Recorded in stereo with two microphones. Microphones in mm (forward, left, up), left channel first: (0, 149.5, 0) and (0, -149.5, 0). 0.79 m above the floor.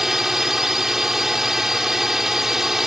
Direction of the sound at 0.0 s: Centre (ahead or behind).